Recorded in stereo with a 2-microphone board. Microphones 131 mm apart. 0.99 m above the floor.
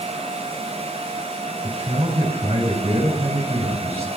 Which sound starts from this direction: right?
A man speaking, at 1.6 s.